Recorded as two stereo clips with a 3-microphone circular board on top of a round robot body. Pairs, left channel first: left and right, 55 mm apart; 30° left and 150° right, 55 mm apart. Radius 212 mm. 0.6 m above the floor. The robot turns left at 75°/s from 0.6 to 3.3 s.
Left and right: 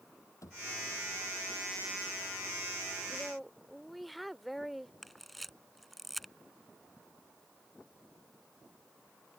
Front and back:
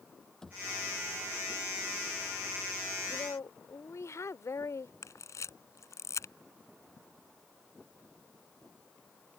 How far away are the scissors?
I don't hear scissors.